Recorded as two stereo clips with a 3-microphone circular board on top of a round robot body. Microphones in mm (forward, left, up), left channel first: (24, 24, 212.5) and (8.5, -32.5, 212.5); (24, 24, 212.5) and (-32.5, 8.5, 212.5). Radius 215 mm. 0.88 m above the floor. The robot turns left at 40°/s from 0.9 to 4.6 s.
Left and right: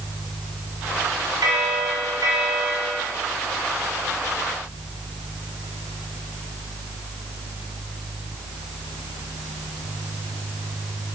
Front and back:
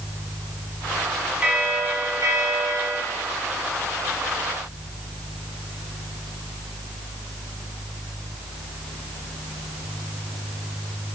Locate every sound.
1.4 s a bell: 95° right, 1.8 m; by 3.0 s 160° right, 1.8 m